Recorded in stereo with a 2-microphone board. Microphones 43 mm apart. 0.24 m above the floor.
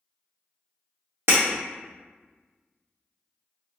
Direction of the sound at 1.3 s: 80° right.